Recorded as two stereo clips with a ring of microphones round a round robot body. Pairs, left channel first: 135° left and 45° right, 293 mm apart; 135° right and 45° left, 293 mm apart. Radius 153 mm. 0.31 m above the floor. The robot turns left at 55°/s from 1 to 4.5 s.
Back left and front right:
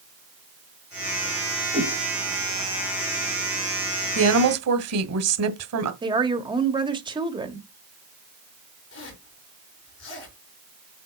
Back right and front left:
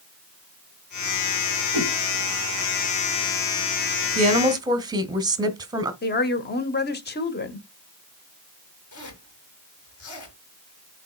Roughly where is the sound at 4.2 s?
Ahead.